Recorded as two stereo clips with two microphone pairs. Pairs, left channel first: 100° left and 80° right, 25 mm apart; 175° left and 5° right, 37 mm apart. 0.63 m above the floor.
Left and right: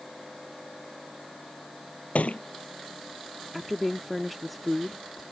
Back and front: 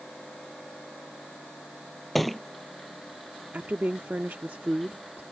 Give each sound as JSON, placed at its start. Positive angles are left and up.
{"t": 2.1, "sound": "a thud", "azimuth_deg": 90}
{"t": 3.5, "sound": "a woman speaking", "azimuth_deg": 15}